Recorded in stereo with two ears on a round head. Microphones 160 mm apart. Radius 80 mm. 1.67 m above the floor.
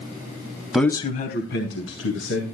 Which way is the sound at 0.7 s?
5° right (ahead or behind).